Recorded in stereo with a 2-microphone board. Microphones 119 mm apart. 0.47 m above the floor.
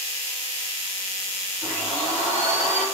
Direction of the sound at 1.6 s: 20° right (ahead or behind).